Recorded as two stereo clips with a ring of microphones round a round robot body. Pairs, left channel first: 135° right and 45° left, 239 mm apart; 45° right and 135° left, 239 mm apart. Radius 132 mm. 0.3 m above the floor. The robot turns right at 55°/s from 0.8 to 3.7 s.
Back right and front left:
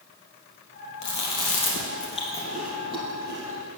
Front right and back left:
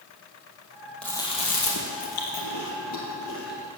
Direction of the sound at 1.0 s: 130° right.